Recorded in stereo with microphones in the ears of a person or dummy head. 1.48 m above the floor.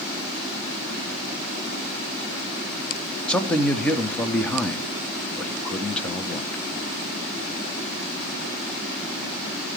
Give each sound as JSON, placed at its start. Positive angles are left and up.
{"t": 3.3, "sound": "a man speaking", "side_deg": 10, "distance_m": 0.7}